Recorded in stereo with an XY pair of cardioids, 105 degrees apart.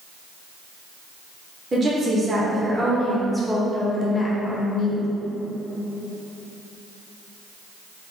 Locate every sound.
1.7 s a woman speaking: 35° right, 1.4 m; by 5.0 s 55° left, 1.1 m